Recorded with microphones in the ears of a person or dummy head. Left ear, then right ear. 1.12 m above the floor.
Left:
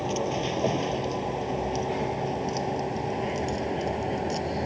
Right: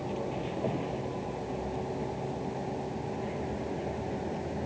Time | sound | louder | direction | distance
0.0 | a vehicle | left 7 dB | 85° left | ?